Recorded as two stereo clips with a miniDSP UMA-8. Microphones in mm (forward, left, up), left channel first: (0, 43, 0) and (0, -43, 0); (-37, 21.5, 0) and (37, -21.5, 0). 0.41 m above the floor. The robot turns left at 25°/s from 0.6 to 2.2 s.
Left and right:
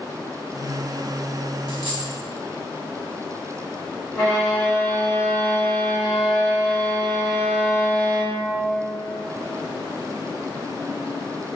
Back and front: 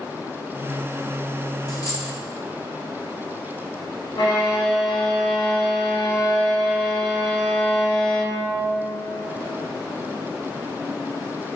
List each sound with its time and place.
1.7 s a dropped coin: 110° left, 1.0 m; by 2.1 s 100° left, 1.0 m
4.1 s a violin: 160° left, 2.0 m